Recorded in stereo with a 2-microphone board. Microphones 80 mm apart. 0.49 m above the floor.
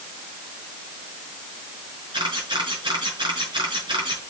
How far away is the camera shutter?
About 5.5 m.